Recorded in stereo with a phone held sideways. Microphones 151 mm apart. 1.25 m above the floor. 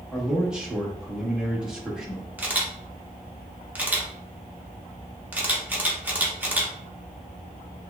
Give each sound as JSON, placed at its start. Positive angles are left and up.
{"t": 0.1, "sound": "a man speaking", "side_deg": -5, "distance_m": 1.1}
{"t": 2.4, "sound": "a camera shutter", "side_deg": -10, "distance_m": 0.8}